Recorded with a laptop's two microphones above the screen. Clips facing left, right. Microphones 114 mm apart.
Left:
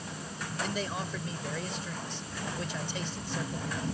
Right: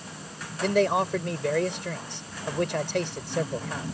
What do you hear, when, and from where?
0.6 s a man speaking: 80° right